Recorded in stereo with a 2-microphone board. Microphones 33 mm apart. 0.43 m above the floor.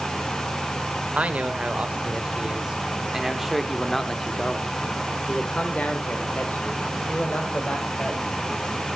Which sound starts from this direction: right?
A man speaking, at 1.1 s.